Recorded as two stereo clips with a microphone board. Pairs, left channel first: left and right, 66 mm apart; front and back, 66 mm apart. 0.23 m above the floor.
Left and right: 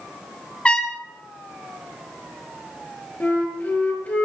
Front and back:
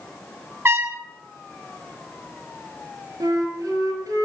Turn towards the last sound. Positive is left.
turn(degrees=155)